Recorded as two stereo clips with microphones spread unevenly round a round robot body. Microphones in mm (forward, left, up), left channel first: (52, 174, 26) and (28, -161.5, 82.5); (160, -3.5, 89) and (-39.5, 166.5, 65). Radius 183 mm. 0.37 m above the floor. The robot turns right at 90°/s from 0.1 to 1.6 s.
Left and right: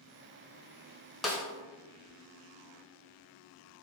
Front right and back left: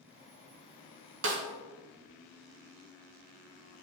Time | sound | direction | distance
1.2 | a snare drum | 170° left | 1.0 m